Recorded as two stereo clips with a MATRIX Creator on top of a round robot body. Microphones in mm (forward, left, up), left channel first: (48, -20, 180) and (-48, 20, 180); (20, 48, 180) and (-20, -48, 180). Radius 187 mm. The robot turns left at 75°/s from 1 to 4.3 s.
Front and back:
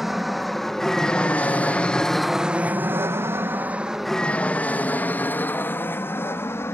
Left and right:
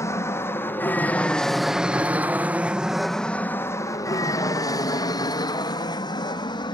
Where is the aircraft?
75° left; by 6.8 s 40° left.